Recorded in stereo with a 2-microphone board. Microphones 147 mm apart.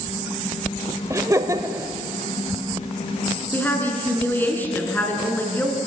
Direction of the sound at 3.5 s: 15° left (ahead or behind).